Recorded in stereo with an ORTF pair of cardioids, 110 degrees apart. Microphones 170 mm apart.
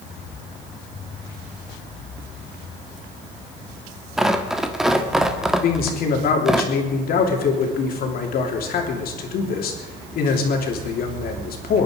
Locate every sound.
4.2 s tearing paper: straight ahead, 1.5 m
5.6 s a man speaking: 65° left, 3 m